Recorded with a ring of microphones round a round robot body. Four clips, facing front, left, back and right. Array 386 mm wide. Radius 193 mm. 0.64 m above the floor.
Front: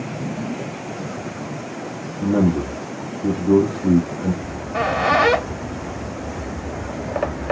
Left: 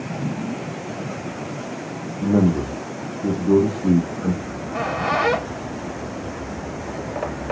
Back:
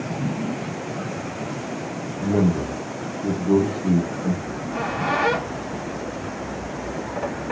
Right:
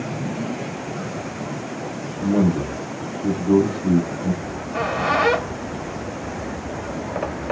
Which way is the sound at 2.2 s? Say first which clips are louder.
Left 1 dB, front 3 dB; 45° left.